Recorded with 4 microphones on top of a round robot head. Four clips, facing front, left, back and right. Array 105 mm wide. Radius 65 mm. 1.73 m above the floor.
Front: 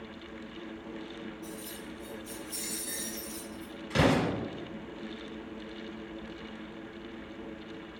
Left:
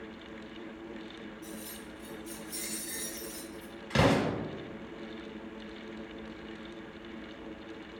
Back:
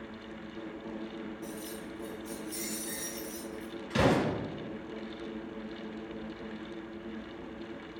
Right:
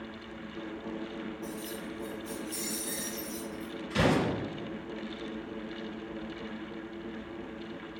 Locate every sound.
1.4 s keys jangling: 175° left, 0.7 m; by 3.7 s 70° right, 1.1 m
3.9 s an explosion: 70° left, 1.0 m